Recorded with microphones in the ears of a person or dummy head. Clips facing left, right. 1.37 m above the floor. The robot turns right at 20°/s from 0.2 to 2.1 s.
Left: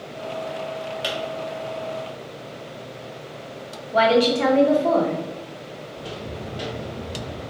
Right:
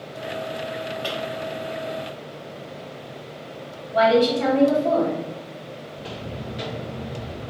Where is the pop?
50° left (ahead or behind), 1.7 m; by 1.2 s 55° left (ahead or behind), 1.7 m.